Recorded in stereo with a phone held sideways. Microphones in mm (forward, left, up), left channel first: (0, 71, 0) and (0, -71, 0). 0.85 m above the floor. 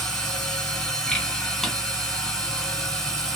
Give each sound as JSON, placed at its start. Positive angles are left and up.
{"t": 0.0, "sound": "a machine running", "side_deg": 5, "distance_m": 1.1}
{"t": 1.6, "sound": "a drawer", "side_deg": 0, "distance_m": 0.5}